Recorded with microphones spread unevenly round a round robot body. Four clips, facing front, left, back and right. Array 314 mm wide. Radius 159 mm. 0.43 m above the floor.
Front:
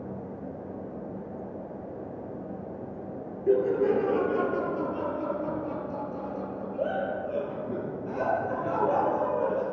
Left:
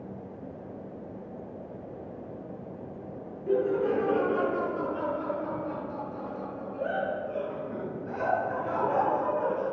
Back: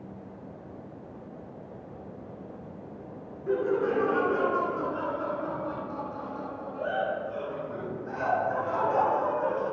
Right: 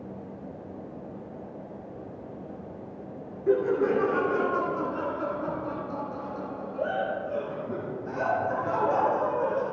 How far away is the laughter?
About 5.5 m.